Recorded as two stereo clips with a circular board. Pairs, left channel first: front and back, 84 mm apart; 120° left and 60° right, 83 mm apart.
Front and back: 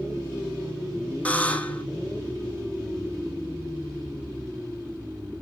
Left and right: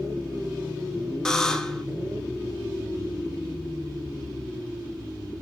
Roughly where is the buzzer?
Ahead left.